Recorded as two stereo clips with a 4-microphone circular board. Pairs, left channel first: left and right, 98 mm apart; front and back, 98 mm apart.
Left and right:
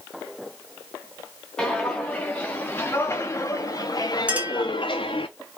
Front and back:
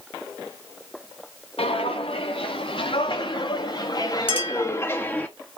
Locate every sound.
1.6 s footsteps: 10° left, 3 m; by 5.3 s 75° left, 1.7 m
4.3 s a clink: 15° right, 3 m